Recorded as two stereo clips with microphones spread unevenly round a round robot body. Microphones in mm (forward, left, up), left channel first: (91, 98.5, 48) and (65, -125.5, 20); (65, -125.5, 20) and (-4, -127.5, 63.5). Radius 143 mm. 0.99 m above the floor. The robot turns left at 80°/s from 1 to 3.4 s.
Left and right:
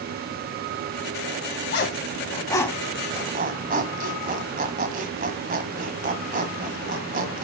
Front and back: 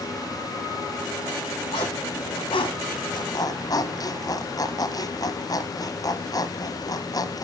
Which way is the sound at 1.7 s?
85° left.